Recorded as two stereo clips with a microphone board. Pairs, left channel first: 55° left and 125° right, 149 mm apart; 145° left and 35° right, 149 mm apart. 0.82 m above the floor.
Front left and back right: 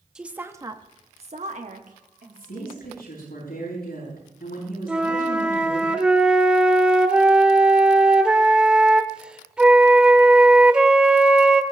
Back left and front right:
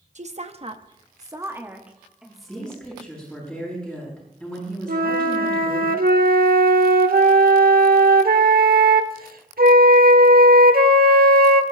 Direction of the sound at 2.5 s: 60° left.